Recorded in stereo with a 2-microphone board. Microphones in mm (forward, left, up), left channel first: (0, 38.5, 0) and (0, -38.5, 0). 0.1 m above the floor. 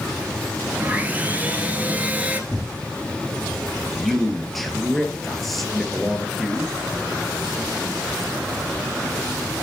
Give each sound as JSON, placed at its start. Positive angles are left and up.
{"t": 0.8, "sound": "sawing", "side_deg": -20, "distance_m": 1.7}
{"t": 2.5, "sound": "tearing paper", "side_deg": 0, "distance_m": 2.0}
{"t": 3.9, "sound": "a man speaking", "side_deg": 0, "distance_m": 2.0}